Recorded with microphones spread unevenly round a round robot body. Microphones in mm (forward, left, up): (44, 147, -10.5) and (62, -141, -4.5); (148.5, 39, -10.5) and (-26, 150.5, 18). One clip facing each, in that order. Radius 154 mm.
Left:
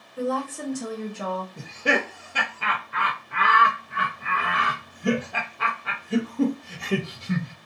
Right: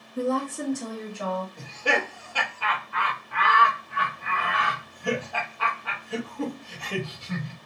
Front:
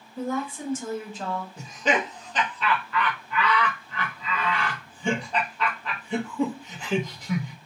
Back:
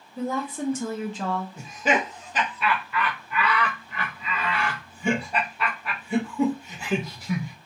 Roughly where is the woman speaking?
Behind right.